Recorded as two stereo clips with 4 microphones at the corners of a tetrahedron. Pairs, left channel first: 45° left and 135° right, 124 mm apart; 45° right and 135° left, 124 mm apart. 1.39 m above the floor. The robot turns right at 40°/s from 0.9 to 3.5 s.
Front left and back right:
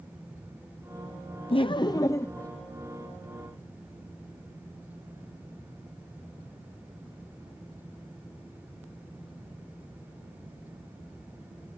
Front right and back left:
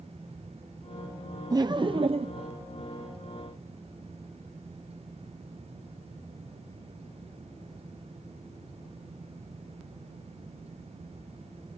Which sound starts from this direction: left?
Laughter, at 1.5 s.